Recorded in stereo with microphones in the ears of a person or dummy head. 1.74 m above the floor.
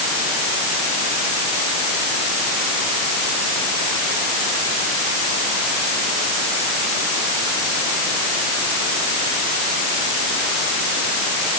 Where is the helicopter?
I don't hear a helicopter.